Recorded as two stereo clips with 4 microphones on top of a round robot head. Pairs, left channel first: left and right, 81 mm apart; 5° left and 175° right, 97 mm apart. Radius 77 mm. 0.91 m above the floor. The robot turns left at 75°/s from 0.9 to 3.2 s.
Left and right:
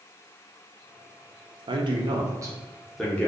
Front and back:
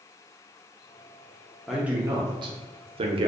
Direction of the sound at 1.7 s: 85° right.